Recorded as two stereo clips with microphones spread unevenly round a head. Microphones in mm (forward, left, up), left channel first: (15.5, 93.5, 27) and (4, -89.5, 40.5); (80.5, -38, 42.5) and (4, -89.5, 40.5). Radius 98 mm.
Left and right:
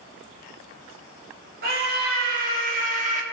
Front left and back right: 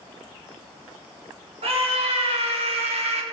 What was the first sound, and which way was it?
A scream, 135° right.